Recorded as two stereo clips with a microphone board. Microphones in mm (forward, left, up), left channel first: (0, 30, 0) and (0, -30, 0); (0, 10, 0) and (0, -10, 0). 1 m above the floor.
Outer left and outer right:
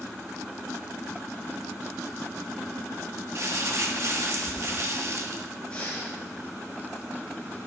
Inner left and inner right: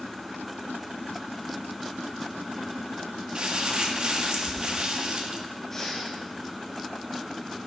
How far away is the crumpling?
About 1.6 m.